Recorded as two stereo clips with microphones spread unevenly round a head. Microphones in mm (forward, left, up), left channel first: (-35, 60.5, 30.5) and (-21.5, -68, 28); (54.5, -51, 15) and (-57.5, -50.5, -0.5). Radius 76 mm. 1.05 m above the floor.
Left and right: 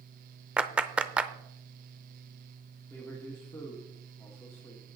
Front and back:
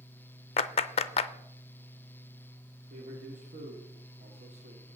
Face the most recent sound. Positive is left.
turn(degrees=170)